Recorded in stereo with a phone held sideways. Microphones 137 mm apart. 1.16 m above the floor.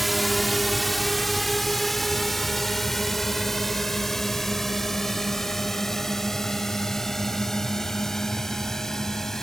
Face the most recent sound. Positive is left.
turn(degrees=5)  # may be behind; listen again after turning